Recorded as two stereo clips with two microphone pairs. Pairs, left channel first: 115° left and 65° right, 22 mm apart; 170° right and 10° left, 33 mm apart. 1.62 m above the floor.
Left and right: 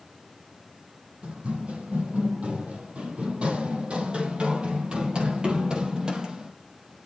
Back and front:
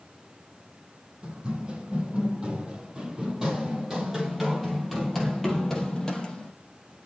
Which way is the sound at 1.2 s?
50° right.